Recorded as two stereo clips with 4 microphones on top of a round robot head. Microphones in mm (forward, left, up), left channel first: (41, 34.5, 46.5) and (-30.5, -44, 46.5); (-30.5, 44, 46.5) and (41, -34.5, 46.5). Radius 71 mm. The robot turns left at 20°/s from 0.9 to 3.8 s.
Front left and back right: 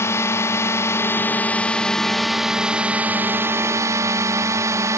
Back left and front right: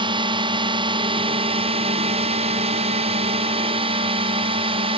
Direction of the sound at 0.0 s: 15° right.